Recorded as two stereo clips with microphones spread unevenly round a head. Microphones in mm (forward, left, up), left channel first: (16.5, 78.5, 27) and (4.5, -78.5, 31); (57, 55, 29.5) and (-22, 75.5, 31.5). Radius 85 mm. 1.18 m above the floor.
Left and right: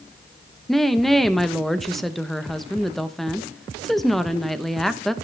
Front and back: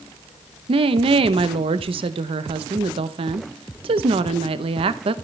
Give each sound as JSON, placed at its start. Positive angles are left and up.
{"t": 0.7, "sound": "a woman speaking", "azimuth_deg": 175, "distance_m": 0.9}